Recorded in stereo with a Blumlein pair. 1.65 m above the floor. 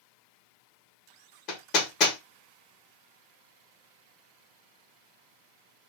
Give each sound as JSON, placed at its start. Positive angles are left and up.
{"t": 1.5, "sound": "hammering", "azimuth_deg": 35, "distance_m": 1.3}